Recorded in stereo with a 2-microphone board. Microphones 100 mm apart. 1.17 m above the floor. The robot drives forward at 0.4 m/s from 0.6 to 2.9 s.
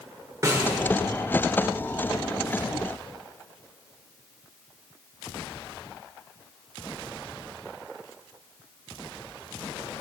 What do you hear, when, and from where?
0.4 s a snare drum: 35° right (ahead or behind), 1.7 m